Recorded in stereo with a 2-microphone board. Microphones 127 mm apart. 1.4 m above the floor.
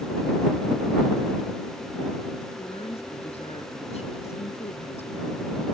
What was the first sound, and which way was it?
A woman speaking, 55° left (ahead or behind).